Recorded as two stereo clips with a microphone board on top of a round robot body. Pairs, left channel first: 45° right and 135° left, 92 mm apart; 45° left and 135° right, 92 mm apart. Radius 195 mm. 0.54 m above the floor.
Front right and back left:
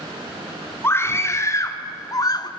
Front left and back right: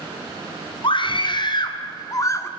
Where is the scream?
20° left, 1.8 m; by 2.5 s 10° right, 1.1 m.